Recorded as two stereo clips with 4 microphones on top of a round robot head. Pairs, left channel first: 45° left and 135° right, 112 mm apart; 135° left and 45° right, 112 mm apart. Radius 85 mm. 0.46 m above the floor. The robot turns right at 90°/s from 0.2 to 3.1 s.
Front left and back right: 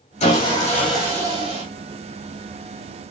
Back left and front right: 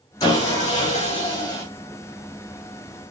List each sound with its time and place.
0.2 s sawing: 70° left, 8 m; by 1.6 s 160° right, 8 m